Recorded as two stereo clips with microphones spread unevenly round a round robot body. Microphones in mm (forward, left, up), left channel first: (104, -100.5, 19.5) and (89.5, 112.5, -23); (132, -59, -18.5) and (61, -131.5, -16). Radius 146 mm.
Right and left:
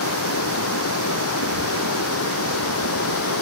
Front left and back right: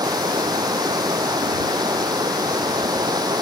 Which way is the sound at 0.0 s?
85° right.